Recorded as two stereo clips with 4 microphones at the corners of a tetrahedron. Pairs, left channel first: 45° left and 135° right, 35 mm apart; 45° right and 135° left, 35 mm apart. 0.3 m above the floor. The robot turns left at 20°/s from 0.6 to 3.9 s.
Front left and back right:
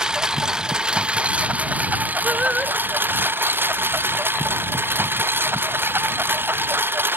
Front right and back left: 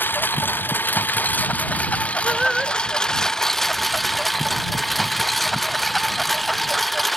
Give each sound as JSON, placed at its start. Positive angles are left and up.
{"t": 0.0, "sound": "a lawn mower", "azimuth_deg": -65}
{"t": 2.2, "sound": "singing", "azimuth_deg": -155}